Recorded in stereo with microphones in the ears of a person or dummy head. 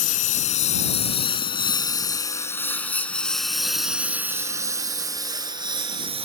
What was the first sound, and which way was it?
A lawn mower, 45° left (ahead or behind).